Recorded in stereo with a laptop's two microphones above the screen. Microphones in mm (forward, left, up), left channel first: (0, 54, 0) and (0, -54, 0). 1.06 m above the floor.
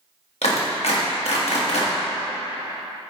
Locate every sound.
0.4 s a clap: 80° left, 1.4 m